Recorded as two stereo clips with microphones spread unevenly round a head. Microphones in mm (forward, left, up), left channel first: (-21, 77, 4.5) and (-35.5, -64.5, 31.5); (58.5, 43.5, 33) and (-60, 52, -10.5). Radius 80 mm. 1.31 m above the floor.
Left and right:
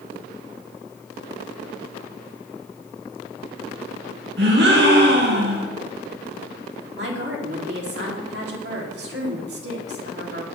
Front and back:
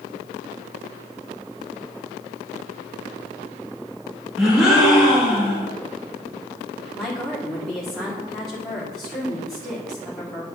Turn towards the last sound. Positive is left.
turn(degrees=-95)